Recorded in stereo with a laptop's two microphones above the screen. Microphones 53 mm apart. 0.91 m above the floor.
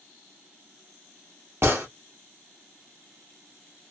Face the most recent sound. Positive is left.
turn(degrees=-55)  # may be behind; listen again after turning